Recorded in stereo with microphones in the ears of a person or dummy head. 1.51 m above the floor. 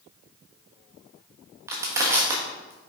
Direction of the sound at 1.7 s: 10° right (ahead or behind).